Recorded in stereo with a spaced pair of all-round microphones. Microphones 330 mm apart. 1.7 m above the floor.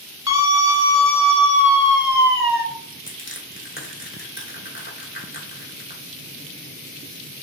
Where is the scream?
50° left (ahead or behind), 1.7 m; by 2.6 s 30° left (ahead or behind), 2.5 m.